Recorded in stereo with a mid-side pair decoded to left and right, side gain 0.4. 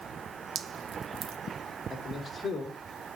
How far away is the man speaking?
About 3.5 m.